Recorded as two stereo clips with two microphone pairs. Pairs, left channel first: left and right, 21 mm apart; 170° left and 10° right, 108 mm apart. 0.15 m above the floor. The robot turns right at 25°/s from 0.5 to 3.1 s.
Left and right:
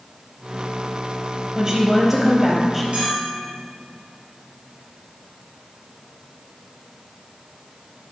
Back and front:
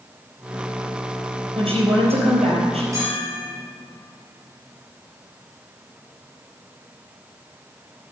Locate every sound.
1.6 s a woman speaking: 35° right, 4 m; by 2.8 s straight ahead, 4 m
2.9 s a bell: 70° right, 4 m; by 3.6 s 65° right, 4 m